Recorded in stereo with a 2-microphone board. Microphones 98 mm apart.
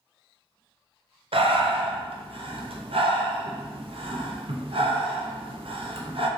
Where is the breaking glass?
No breaking glass in this recording.